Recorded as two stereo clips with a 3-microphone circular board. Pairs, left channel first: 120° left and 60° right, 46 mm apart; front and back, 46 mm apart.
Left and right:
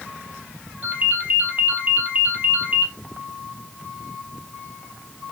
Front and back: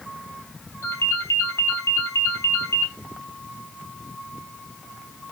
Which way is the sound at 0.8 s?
15° right.